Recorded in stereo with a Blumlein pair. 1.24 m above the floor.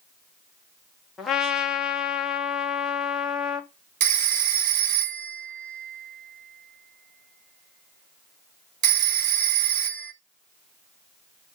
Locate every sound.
1.2 s a trumpet: 10° left, 0.8 m
4.0 s a phone ringing: 45° right, 1.3 m